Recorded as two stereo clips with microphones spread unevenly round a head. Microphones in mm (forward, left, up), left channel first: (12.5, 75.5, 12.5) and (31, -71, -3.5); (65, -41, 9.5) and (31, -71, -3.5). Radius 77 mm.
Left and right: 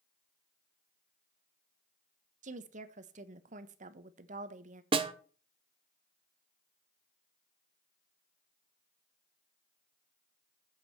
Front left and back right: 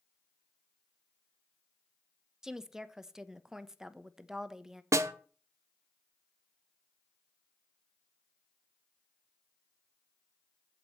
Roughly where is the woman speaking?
Right.